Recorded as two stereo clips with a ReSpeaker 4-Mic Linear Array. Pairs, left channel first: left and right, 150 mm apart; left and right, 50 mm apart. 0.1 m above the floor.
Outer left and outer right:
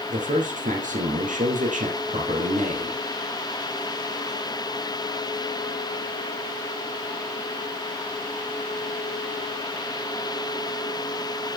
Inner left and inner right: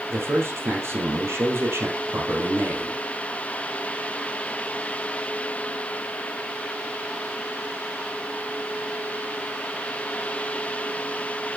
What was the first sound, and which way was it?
A man speaking, 60° right (ahead or behind).